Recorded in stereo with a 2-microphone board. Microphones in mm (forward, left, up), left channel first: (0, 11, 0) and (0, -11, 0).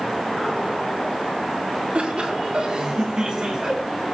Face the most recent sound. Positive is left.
turn(degrees=-25)  # may be behind; listen again after turning